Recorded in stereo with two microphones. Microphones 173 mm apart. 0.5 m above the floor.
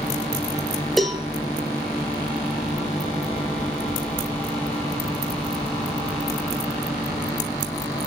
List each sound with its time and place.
1.0 s a cowbell: centre (ahead or behind), 2.5 m